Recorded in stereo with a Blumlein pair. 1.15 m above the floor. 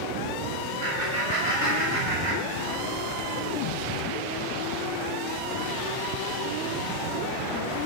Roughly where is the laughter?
Ahead right.